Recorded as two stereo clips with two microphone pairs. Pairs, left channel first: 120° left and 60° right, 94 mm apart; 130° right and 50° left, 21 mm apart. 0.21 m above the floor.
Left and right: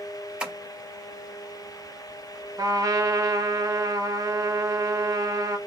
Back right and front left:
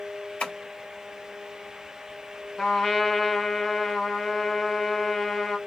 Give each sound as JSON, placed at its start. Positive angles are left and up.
{"t": 0.4, "sound": "tapping", "azimuth_deg": -135, "distance_m": 3.5}
{"t": 2.6, "sound": "a trumpet", "azimuth_deg": -90, "distance_m": 1.4}